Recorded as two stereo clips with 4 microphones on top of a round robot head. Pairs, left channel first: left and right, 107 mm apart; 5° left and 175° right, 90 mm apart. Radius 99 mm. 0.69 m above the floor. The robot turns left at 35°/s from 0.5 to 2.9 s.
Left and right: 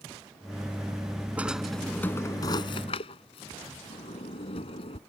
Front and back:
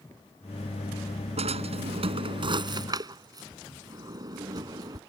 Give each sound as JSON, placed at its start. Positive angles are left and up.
{"t": 1.4, "sound": "a drawer", "azimuth_deg": -170}